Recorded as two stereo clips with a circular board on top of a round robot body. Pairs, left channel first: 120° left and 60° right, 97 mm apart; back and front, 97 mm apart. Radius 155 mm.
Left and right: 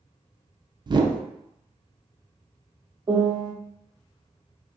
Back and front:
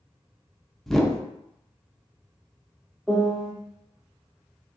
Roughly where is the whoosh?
Right.